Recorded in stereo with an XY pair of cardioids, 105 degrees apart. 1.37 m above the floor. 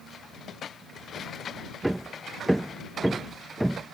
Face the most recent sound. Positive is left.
turn(degrees=-10)